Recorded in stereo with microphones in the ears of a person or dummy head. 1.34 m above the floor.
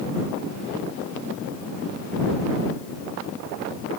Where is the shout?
I don't hear a shout.